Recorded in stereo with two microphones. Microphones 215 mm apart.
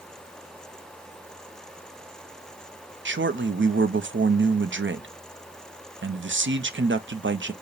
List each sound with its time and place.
3.0 s a man speaking: 70° right (ahead or behind), 0.5 m